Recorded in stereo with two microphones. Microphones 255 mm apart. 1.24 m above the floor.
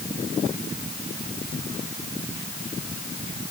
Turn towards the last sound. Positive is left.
No sound to turn to.